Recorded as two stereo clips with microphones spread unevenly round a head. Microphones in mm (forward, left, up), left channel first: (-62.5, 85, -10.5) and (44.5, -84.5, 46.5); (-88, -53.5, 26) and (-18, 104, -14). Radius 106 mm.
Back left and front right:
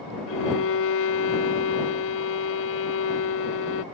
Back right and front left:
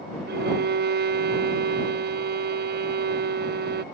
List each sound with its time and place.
0.3 s a violin: 95° left